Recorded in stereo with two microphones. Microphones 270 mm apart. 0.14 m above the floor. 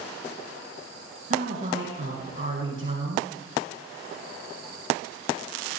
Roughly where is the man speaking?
Right.